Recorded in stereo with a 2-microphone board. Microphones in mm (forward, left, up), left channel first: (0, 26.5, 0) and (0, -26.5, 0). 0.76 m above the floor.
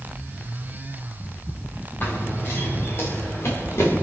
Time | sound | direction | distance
2.0 | running footsteps | 40° left (ahead or behind) | 2.5 m